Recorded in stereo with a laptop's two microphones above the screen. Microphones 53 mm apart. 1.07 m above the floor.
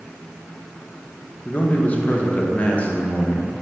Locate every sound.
1.4 s a man speaking: 25° left (ahead or behind), 0.7 m